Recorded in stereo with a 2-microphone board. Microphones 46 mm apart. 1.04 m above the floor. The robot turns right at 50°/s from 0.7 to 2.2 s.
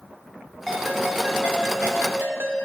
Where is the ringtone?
175° left, 1.2 m; by 2.6 s 110° right, 1.2 m.